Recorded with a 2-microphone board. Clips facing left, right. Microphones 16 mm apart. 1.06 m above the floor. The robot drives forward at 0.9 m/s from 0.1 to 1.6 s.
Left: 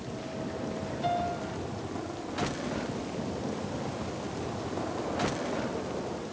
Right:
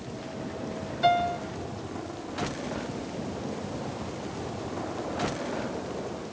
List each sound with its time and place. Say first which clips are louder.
1.0 s a piano: right 7 dB; 50° right (ahead or behind), 1.1 m; by 1.4 s 55° right (ahead or behind), 1.1 m